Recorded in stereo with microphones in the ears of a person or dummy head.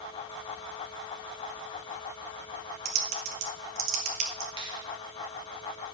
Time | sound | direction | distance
2.9 | typing on a keyboard | 40° right (ahead or behind) | 1.2 m
4.6 | a finger snap | 25° right (ahead or behind) | 1.5 m